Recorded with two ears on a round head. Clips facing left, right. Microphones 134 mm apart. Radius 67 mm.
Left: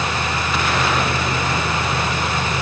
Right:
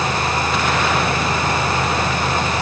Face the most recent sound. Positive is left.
No sound to turn to.